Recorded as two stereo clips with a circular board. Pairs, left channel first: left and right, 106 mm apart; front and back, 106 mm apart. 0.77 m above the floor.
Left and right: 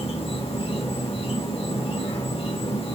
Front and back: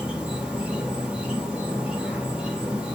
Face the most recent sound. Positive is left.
turn(degrees=100)